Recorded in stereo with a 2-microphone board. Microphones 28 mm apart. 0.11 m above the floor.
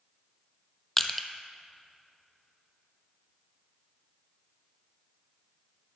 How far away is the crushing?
About 0.7 m.